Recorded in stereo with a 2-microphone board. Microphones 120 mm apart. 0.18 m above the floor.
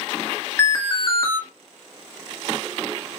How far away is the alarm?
About 1.6 m.